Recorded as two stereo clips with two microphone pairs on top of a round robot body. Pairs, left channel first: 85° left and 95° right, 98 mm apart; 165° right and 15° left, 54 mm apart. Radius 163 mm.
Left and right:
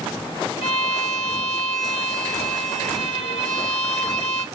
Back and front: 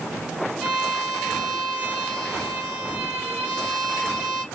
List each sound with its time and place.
0.6 s a violin: 90° left, 1.5 m